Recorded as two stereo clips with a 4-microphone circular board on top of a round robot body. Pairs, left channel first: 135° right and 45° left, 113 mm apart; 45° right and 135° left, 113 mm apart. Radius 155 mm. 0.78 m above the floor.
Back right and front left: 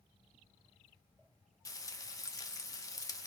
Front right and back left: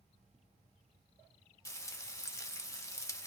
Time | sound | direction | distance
1.6 | frying | 95° right | 1.2 m